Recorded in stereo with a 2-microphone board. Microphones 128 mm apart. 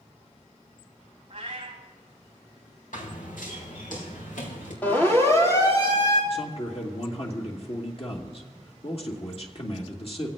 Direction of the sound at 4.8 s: 15° left (ahead or behind).